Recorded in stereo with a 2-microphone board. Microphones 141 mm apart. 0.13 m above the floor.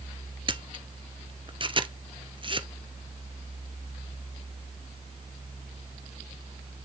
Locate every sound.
0.5 s a camera shutter: 35° right (ahead or behind), 0.8 m